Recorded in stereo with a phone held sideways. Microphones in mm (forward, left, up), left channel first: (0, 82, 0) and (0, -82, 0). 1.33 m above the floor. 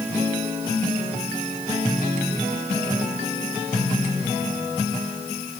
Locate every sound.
Only background noise.